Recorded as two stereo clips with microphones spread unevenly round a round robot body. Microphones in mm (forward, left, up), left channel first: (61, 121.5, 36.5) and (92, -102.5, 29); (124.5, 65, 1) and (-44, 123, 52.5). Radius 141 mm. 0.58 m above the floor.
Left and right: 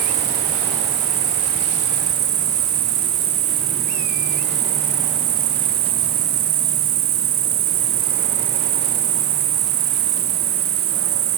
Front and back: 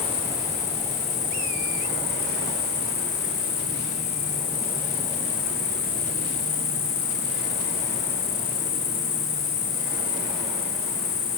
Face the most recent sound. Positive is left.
turn(degrees=-60)